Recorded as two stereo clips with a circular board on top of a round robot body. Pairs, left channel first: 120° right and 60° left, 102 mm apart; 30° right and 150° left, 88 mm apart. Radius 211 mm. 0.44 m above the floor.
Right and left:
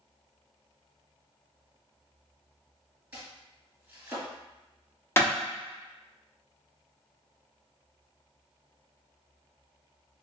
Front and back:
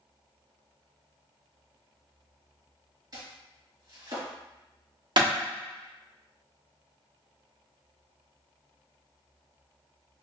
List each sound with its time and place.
3.1 s chopping: 130° left, 2.0 m
5.2 s a clap: 175° left, 1.2 m